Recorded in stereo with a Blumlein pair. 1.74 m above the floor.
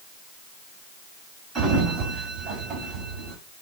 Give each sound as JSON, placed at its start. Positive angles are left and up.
{"t": 1.6, "sound": "a sliding door", "azimuth_deg": -20, "distance_m": 1.1}